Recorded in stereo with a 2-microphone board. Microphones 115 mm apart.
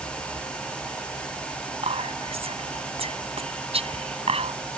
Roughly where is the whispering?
Right.